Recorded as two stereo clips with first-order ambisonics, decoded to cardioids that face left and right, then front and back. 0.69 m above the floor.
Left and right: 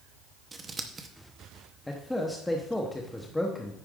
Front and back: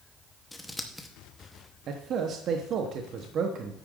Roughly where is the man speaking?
Behind.